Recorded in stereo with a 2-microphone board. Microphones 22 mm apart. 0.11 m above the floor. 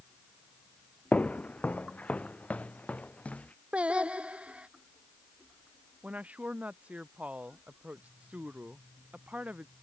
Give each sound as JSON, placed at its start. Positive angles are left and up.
{"t": 1.1, "sound": "footsteps", "side_deg": 85}
{"t": 3.7, "sound": "singing", "side_deg": -60}
{"t": 6.0, "sound": "a woman speaking", "side_deg": -85}